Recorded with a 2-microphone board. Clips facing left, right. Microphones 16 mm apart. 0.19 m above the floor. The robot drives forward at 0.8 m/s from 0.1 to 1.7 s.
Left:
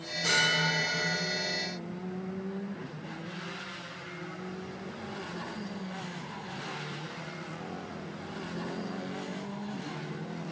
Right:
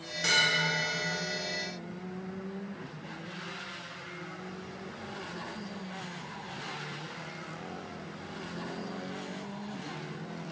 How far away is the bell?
About 1.2 m.